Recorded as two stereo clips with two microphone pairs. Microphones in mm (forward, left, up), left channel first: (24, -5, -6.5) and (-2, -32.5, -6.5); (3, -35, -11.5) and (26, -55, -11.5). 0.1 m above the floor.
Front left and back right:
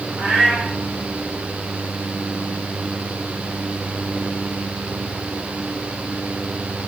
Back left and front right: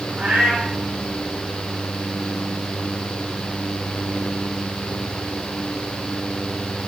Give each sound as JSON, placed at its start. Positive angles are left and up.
{"t": 0.2, "sound": "a cat meowing", "azimuth_deg": -90, "distance_m": 5.0}